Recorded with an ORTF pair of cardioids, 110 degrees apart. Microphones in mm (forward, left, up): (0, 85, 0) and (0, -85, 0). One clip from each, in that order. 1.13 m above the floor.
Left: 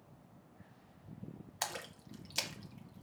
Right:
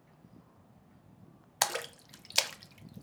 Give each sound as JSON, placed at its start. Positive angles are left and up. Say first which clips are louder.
{"t": 1.6, "sound": "a splash", "louder": "right 9 dB", "azimuth_deg": -45, "distance_m": 0.5}